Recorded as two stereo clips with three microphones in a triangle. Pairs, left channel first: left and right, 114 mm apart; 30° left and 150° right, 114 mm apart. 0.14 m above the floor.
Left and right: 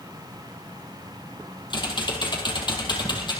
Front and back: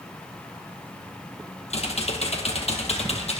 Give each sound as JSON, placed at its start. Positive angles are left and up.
{"t": 1.7, "sound": "typing on a keyboard", "azimuth_deg": 45, "distance_m": 2.5}